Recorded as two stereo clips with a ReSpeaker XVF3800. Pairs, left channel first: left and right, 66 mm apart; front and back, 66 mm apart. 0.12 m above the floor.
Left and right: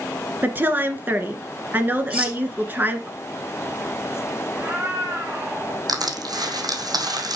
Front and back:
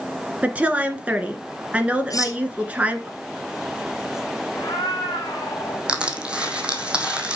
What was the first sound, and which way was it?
A woman speaking, 125° right.